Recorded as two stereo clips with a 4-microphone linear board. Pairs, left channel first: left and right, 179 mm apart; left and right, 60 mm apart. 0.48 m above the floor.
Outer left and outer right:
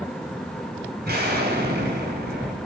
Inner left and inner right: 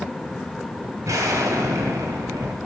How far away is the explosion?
About 2 m.